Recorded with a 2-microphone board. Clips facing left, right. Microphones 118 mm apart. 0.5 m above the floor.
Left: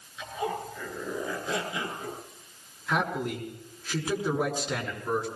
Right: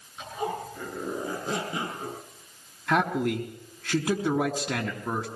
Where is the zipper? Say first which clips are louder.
Even; 50° right (ahead or behind), 8 m.